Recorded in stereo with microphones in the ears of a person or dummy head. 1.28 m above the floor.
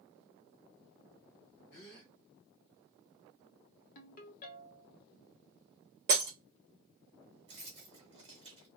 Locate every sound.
1.7 s a gasp: 50° left (ahead or behind), 1.4 m
4.0 s a ringtone: 45° left (ahead or behind), 1.0 m
6.1 s breaking glass: 20° right (ahead or behind), 1.4 m
7.5 s keys jangling: 30° right (ahead or behind), 1.5 m